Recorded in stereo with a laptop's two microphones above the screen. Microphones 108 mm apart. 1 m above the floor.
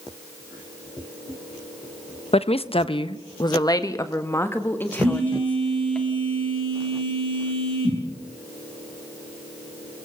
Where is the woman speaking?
65° left (ahead or behind), 0.9 m; by 6.0 s 10° left (ahead or behind), 2.0 m.